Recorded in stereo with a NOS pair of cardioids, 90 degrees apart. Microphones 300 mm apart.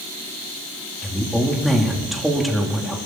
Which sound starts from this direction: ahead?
A woman speaking, at 1.0 s.